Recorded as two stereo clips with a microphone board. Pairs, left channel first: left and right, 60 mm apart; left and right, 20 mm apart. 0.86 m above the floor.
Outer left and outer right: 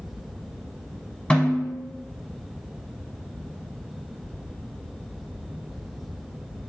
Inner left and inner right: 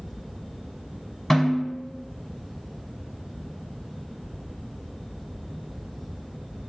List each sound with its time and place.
1.3 s a snare drum: 15° left (ahead or behind), 0.9 m